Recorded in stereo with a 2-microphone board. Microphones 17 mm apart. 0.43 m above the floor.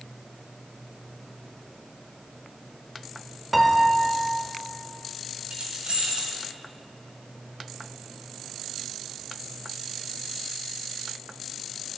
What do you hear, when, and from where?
3.5 s a piano: centre (ahead or behind), 0.8 m
5.5 s keys jangling: 70° right (ahead or behind), 2.5 m